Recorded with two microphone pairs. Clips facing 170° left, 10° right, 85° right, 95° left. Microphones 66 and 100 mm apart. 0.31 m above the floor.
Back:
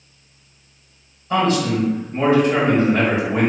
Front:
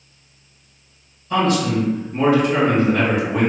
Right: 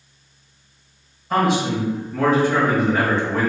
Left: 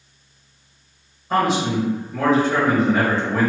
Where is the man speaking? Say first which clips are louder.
Even, even; 155° left, 1.5 m.